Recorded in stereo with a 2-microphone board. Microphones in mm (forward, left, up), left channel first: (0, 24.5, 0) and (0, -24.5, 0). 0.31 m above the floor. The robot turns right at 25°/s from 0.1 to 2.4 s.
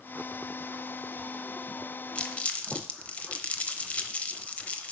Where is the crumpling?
25° left (ahead or behind), 0.8 m; by 4.9 s 30° left (ahead or behind), 0.8 m.